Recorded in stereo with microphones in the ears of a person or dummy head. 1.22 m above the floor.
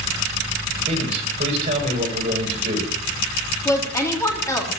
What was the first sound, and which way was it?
A man speaking, 30° right (ahead or behind).